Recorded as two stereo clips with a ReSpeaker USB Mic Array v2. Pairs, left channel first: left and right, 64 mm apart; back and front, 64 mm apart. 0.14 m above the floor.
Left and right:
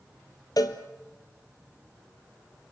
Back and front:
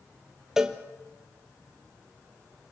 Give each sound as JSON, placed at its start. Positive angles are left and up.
{"t": 0.6, "sound": "a cowbell", "azimuth_deg": 80, "distance_m": 1.2}